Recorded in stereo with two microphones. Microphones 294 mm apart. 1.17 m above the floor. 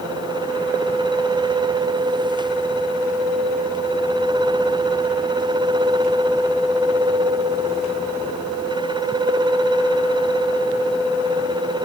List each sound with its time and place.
Only background noise.